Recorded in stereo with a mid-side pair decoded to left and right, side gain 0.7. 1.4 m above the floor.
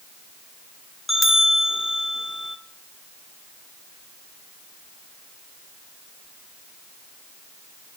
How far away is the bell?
About 1.5 m.